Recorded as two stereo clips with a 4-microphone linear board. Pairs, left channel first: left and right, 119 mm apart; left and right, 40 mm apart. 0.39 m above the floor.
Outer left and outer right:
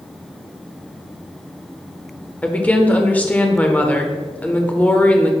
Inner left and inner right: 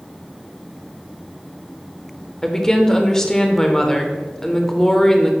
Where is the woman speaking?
15° left (ahead or behind), 0.8 m.